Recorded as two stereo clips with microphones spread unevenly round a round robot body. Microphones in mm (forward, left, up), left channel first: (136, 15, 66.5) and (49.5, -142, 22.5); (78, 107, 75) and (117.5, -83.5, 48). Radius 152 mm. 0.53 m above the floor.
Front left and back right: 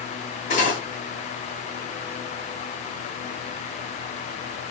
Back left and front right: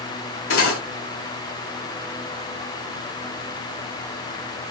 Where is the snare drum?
No snare drum in this recording.